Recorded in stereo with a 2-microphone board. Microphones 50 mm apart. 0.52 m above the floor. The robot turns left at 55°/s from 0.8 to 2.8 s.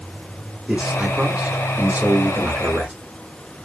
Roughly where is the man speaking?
Centre.